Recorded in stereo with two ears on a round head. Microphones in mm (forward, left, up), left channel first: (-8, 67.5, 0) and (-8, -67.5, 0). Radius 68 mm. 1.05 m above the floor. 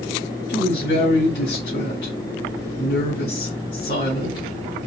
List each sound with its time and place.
0.5 s a woman speaking: 65° left (ahead or behind), 2.0 m